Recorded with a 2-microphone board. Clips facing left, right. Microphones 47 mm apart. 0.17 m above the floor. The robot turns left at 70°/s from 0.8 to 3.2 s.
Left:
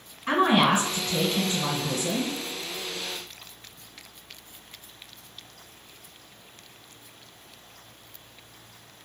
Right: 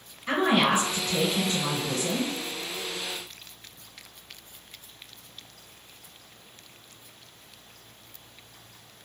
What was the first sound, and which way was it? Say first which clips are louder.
A woman speaking: left 2 dB; 80° left.